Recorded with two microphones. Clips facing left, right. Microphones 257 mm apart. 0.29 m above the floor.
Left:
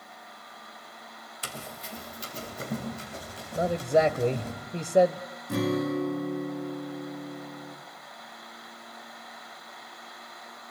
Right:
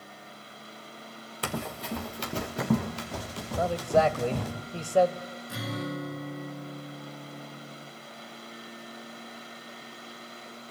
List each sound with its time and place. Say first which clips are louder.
1.4 s running footsteps: right 9 dB; 65° right (ahead or behind), 2.0 m; by 4.5 s 85° right, 6 m
3.5 s a man speaking: left 1 dB; 20° left (ahead or behind), 0.9 m
5.5 s a guitar: left 9 dB; 55° left (ahead or behind), 4 m